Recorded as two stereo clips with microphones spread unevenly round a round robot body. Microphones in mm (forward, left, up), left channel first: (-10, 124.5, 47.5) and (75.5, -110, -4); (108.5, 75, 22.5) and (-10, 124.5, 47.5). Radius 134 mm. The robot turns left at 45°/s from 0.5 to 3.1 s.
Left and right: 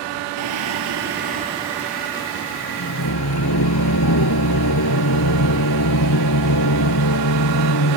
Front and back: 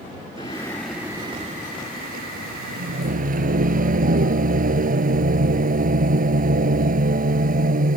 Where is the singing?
95° right; by 8.0 s 145° left.